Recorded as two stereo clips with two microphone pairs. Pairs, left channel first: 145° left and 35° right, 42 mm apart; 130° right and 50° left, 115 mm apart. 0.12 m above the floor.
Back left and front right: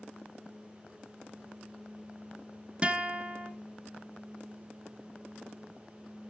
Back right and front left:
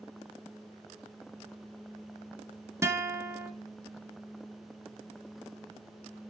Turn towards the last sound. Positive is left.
turn(degrees=5)